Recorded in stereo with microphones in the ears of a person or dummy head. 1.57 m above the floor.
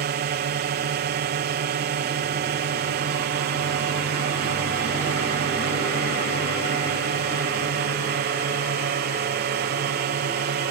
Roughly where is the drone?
Right.